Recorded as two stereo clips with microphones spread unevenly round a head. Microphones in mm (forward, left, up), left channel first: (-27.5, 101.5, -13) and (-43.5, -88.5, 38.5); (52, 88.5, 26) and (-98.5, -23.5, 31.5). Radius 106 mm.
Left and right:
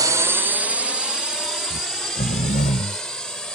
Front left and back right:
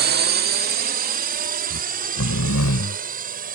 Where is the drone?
175° right; by 3.5 s 170° left.